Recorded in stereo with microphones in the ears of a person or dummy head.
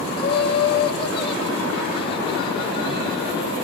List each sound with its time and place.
0.2 s laughter: 30° left (ahead or behind), 4.5 m